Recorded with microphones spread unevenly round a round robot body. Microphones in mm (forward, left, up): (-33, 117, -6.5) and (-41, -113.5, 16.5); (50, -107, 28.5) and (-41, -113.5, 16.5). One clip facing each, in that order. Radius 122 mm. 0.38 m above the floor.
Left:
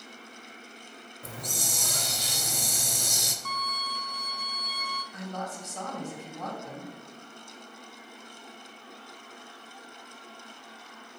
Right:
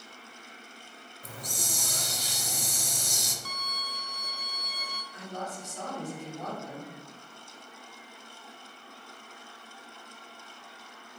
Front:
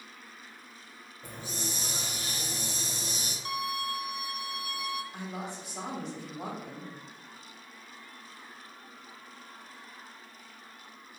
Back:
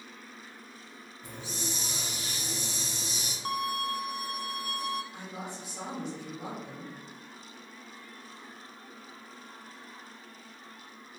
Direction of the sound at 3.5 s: 145° right.